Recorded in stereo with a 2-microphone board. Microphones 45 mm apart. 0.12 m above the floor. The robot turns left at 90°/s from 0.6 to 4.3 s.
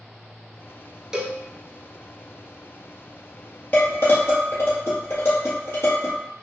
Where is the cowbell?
15° right (ahead or behind), 0.6 m; by 1.4 s 30° right (ahead or behind), 0.6 m.